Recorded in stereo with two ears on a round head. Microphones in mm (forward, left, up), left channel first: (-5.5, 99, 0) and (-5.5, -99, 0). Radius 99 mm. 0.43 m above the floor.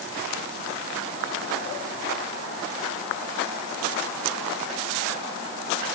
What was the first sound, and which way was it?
Only background noise.